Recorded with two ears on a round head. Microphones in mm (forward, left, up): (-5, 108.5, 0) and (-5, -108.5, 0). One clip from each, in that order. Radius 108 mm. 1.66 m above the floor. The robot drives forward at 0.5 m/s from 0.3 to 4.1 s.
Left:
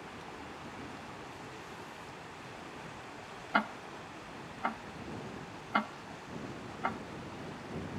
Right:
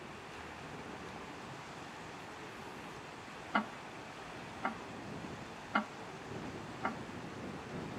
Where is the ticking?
15° left (ahead or behind); by 7.0 s 10° left (ahead or behind).